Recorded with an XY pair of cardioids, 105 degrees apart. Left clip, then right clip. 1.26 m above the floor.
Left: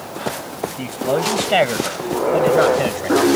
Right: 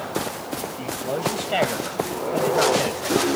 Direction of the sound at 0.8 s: 50° left.